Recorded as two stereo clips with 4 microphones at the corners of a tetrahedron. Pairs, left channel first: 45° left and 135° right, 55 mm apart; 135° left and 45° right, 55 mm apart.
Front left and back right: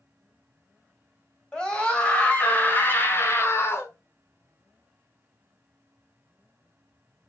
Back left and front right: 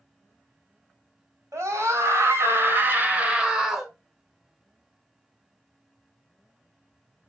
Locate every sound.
1.5 s a scream: 25° right, 1.9 m; by 3.9 s 45° left, 1.2 m